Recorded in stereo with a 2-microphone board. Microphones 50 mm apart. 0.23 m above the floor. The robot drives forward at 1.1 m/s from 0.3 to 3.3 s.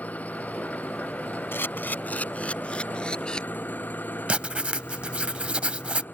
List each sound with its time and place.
0.0 s an engine running: 30° left (ahead or behind); by 6.2 s 35° left (ahead or behind)
1.5 s a camera shutter: 50° left (ahead or behind); by 3.4 s 20° left (ahead or behind)
4.3 s writing: 25° right (ahead or behind)